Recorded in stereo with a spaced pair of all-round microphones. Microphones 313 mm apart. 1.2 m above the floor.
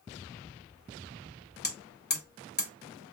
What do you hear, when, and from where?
1.6 s hammering: 30° left (ahead or behind), 0.8 m